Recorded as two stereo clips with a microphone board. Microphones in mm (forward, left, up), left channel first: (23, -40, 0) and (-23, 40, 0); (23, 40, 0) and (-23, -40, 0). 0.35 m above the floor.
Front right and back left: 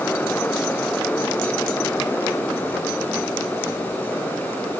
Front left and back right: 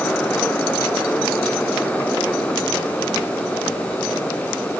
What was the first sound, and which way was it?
Only background noise.